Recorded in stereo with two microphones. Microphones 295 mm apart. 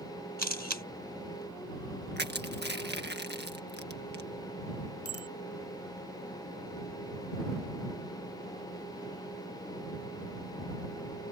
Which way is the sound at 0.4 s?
70° right (ahead or behind).